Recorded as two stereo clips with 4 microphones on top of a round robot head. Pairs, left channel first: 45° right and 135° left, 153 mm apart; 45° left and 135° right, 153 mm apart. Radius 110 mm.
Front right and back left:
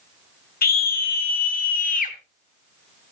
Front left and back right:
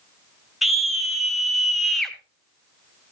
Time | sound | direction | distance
0.6 | a scream | 45° right | 2 m